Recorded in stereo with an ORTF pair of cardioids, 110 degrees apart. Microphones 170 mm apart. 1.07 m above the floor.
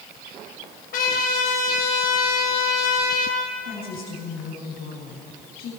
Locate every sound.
0.9 s a trumpet: 65° left, 6.5 m
3.6 s a woman speaking: 60° left, 6.5 m